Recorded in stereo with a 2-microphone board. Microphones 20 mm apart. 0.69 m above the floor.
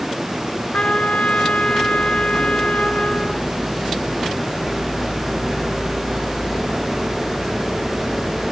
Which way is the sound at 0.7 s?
80° left.